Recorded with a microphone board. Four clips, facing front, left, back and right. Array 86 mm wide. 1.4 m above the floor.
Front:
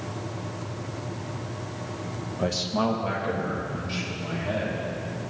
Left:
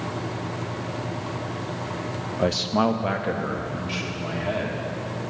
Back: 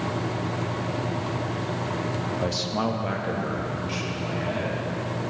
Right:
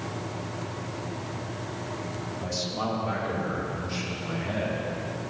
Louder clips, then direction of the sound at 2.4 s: Left 11 dB, front 4 dB; 85° left.